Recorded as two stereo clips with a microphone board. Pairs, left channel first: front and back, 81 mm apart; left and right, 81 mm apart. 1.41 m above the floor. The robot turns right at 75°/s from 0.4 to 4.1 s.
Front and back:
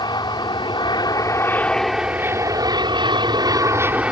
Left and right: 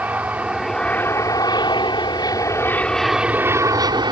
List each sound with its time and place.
0.0 s an aircraft: 20° right; by 4.1 s 105° right